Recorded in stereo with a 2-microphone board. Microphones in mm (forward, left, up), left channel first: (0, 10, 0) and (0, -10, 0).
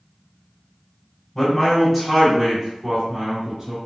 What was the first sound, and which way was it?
A man speaking, 15° left (ahead or behind).